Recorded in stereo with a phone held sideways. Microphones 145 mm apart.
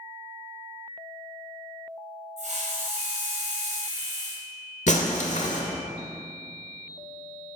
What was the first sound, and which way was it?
A hiss, 55° right (ahead or behind).